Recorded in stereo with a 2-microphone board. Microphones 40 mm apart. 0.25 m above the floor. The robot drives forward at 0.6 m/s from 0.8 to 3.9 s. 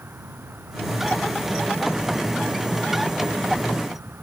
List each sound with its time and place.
0.0 s an insect: 80° right; by 4.2 s 75° right (ahead or behind)